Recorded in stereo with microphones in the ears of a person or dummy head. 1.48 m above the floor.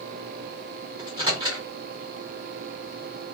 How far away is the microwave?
About 0.9 m.